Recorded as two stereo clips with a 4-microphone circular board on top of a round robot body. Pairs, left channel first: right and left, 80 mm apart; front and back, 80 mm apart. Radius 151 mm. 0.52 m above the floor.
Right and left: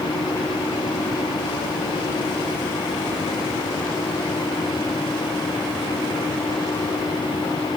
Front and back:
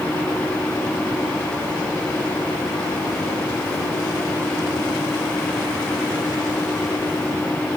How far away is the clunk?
No clunk in this recording.